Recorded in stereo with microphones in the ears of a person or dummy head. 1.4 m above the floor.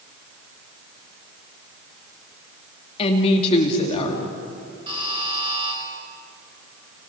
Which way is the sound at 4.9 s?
25° right (ahead or behind).